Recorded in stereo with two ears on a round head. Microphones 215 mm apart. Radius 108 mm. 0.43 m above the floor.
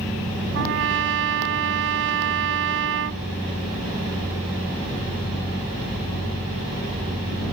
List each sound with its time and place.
0.5 s a trumpet: 55° right (ahead or behind)